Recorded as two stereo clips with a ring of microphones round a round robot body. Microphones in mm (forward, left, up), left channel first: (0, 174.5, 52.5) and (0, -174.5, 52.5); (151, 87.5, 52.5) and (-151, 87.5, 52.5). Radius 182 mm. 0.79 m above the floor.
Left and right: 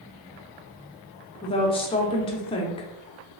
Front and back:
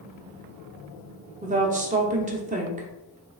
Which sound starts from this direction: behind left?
A woman speaking, at 1.4 s.